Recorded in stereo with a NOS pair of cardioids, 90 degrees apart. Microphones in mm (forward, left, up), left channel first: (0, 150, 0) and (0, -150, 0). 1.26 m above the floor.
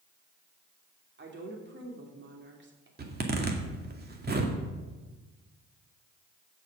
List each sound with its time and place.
1.2 s a woman speaking: 35° right, 3 m
3.0 s a zipper: 30° right, 2 m